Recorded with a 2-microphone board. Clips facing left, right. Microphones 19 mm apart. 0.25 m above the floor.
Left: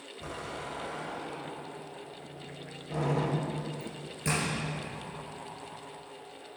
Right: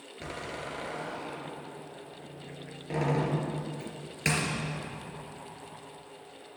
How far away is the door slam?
About 3 m.